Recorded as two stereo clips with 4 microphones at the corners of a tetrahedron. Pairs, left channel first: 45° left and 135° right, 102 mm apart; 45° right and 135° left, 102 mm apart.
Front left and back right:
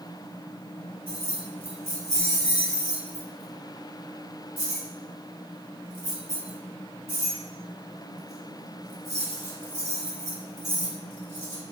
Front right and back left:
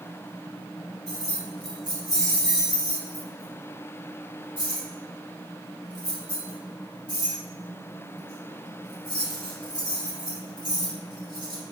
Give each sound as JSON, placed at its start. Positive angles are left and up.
{"t": 1.1, "sound": "keys jangling", "azimuth_deg": 110, "distance_m": 2.0}